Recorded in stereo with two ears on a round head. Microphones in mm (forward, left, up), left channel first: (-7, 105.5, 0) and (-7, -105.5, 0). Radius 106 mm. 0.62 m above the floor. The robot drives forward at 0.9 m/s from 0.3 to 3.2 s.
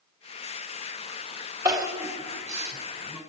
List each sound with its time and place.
1.6 s crying: 15° right (ahead or behind), 2.5 m; by 3.2 s 10° right (ahead or behind), 4 m